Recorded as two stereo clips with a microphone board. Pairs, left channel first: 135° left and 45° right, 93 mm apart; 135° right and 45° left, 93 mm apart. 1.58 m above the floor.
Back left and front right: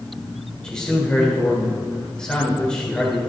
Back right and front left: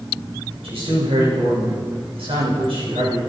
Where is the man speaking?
55° left, 7 m.